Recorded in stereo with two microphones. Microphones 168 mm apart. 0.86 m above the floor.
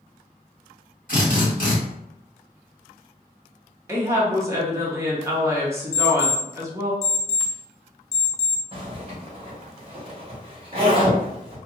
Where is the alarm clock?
45° left (ahead or behind), 0.8 m.